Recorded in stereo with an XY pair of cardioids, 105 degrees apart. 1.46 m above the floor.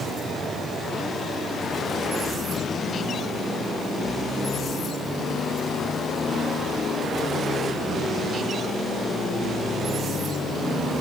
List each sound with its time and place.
Only background noise.